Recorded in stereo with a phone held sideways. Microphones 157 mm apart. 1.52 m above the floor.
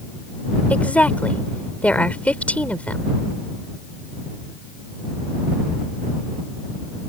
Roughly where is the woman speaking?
Centre.